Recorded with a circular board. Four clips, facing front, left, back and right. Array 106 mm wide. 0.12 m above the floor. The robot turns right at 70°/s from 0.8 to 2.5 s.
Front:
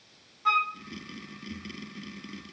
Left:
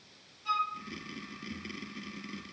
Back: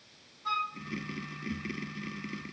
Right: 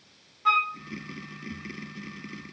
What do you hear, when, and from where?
0.5 s a flute: 60° right, 0.9 m